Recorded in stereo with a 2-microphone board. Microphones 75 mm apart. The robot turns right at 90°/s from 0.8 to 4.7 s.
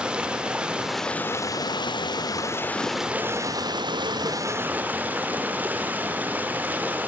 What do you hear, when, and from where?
0.0 s running water: 15° right, 0.9 m; by 7.1 s 20° right, 0.9 m